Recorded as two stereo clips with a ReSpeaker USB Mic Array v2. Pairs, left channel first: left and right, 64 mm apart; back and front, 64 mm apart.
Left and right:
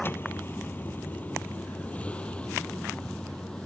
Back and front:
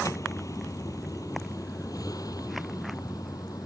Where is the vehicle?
145° left; by 3.7 s 170° left.